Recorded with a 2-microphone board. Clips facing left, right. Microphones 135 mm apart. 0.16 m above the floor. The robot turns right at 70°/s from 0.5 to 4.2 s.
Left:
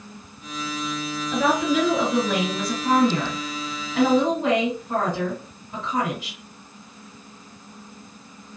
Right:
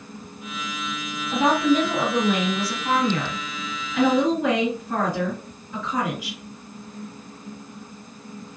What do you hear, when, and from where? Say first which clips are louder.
1.3 s a woman speaking: right 2 dB; 60° right, 2.0 m; by 6.4 s 145° left, 2.0 m